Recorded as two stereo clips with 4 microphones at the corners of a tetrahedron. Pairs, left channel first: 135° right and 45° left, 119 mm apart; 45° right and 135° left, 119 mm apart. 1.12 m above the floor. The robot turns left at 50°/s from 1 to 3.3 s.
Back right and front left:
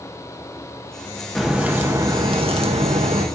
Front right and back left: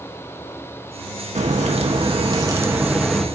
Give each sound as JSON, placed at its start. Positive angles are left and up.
{"t": 1.4, "sound": "a crack", "azimuth_deg": 135, "distance_m": 1.6}